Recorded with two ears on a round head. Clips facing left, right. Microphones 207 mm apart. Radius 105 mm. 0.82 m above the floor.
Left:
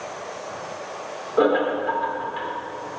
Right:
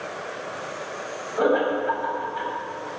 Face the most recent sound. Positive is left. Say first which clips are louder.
# left 2 dB
turn(degrees=60)  # may be behind; listen again after turning